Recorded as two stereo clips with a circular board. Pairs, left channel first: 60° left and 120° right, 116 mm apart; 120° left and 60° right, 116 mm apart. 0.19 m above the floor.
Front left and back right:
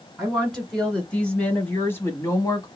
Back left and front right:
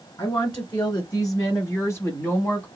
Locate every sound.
0.2 s a woman speaking: 155° left, 1.4 m; by 2.7 s 55° left, 1.1 m